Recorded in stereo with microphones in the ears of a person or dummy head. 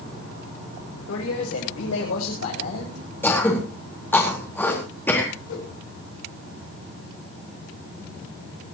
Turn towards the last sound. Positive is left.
turn(degrees=80)